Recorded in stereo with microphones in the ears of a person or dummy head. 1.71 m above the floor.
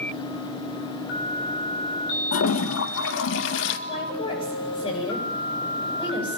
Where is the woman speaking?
25° left (ahead or behind), 9.5 m.